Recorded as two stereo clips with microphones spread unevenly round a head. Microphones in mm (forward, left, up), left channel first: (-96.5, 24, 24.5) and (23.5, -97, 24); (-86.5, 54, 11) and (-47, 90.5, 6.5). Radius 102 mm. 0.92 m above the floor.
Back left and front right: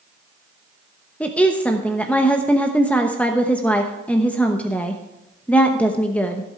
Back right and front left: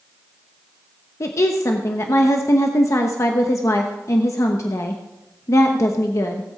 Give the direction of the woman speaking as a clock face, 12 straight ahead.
5 o'clock.